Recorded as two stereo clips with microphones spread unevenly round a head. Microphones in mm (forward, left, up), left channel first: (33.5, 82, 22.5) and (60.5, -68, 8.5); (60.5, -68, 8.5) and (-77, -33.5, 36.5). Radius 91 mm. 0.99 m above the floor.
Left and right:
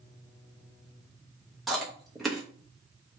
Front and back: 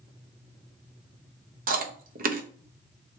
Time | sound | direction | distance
1.7 | chewing | 170° right | 0.7 m